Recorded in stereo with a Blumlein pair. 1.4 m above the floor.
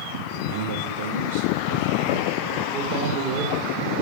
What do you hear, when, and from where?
0.3 s a man speaking: 55° right, 5.5 m; by 3.7 s 40° right, 5.5 m